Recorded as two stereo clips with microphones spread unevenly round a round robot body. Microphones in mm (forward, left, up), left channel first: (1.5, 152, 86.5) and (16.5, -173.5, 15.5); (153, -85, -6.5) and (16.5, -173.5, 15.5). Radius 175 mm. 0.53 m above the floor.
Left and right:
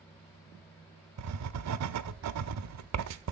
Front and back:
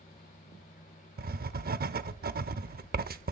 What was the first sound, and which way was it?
Writing, 120° right.